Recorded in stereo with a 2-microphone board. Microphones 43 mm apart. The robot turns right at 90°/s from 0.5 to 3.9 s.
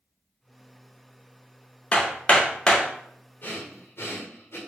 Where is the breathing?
50° left (ahead or behind), 0.8 m; by 4.6 s 60° left (ahead or behind), 0.8 m.